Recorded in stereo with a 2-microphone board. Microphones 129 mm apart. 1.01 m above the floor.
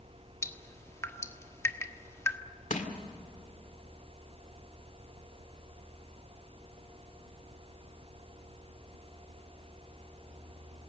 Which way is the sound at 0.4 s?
20° left (ahead or behind).